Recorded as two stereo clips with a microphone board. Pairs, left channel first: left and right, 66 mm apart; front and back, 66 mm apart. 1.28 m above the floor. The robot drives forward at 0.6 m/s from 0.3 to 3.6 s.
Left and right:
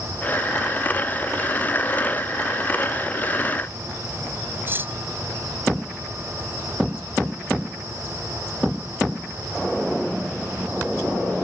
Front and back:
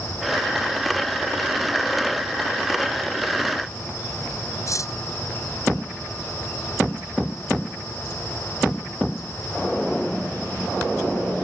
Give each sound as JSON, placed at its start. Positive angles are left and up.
{"t": 4.7, "sound": "cutlery clinking", "azimuth_deg": -35}